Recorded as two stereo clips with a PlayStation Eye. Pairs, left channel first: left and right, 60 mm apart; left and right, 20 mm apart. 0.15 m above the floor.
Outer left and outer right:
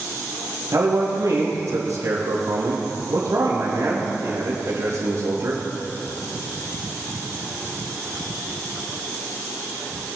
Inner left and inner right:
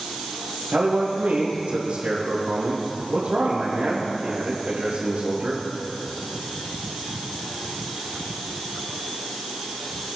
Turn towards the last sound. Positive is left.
turn(degrees=-70)  # may be behind; listen again after turning